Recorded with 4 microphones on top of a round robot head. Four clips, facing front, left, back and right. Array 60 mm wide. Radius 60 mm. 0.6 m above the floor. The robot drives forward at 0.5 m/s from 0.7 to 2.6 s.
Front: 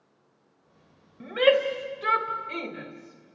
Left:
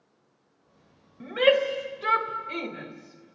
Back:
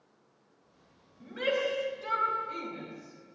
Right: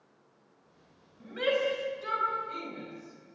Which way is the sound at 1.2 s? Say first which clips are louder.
Left 8 dB, front 9 dB; 35° left.